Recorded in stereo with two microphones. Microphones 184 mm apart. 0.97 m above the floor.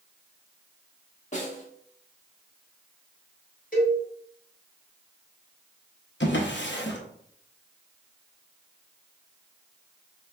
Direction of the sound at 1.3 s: 40° left (ahead or behind).